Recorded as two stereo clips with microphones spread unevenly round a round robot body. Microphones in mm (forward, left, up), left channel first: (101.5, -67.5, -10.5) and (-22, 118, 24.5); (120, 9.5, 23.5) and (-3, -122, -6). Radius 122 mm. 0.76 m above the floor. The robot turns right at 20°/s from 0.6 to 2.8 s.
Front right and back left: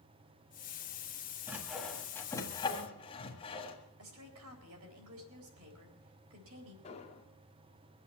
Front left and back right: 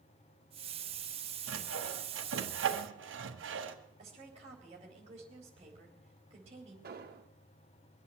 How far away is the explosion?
About 1.7 m.